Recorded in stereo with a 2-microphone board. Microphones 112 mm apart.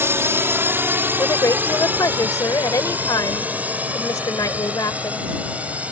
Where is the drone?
25° right (ahead or behind); by 5.9 s 10° right (ahead or behind).